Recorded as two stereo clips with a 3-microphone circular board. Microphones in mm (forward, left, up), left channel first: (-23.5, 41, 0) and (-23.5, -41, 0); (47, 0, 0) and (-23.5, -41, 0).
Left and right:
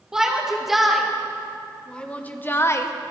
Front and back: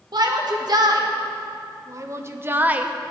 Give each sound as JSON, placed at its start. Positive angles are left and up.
{"t": 0.1, "sound": "a shout", "azimuth_deg": -170, "distance_m": 2.0}